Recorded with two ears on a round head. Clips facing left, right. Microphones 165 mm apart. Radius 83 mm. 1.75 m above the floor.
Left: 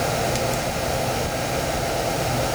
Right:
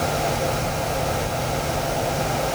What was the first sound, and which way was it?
Only background noise.